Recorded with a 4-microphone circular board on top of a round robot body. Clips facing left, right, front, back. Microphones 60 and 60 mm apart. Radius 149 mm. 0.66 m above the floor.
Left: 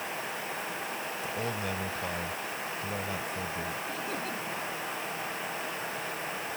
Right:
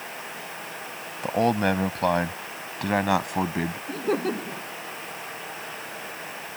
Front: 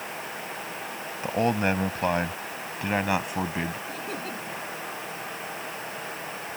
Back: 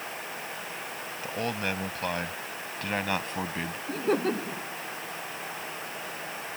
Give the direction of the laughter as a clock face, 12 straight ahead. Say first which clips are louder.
Right 9 dB, back 7 dB; 4 o'clock.